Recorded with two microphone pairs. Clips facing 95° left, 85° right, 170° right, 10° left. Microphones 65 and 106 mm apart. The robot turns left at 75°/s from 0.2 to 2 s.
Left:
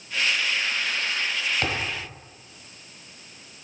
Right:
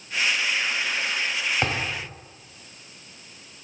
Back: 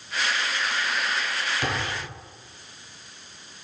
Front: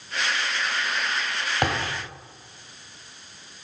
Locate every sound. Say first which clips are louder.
1.6 s a thud: right 1 dB, front 7 dB; 15° right, 1.8 m; by 2.0 s 45° right, 1.8 m